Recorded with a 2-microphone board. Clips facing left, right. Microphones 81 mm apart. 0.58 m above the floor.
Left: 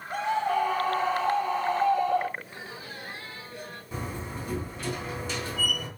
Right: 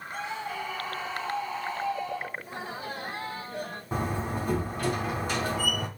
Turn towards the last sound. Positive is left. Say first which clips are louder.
# right 6 dB
turn(degrees=-45)  # may be behind; listen again after turning